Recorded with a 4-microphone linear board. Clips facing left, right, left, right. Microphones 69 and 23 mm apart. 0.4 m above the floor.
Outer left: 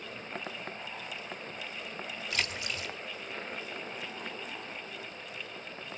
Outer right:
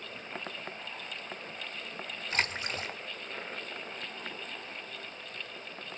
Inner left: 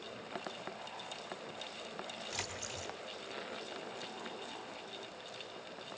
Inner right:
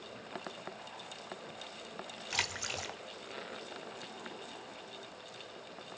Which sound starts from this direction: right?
A splash, at 2.3 s.